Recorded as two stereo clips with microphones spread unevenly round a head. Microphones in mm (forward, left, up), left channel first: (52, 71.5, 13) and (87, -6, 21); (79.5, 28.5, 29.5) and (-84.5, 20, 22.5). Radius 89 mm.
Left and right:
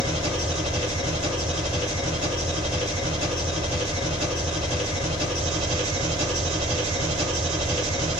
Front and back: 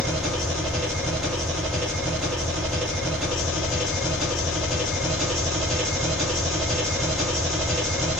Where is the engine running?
85° right, 0.8 m.